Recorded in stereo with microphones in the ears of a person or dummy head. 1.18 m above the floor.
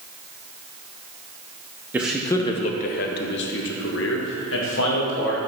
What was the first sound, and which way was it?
A man speaking, 10° right (ahead or behind).